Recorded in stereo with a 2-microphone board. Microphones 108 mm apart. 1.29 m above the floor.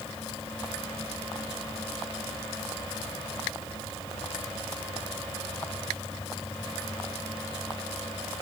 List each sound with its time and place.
Only background noise.